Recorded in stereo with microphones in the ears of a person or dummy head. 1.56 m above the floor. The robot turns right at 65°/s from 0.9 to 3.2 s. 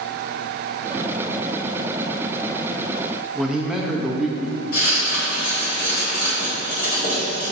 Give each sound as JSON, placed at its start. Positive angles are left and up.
{"t": 3.4, "sound": "a man speaking", "side_deg": -5, "distance_m": 0.7}
{"t": 4.7, "sound": "writing", "side_deg": 50, "distance_m": 1.5}